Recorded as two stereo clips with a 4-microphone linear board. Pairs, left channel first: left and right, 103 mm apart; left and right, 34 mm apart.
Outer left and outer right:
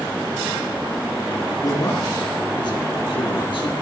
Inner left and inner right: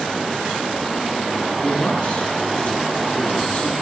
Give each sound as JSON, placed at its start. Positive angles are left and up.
{"t": 1.6, "sound": "a man speaking", "side_deg": 35, "distance_m": 3.5}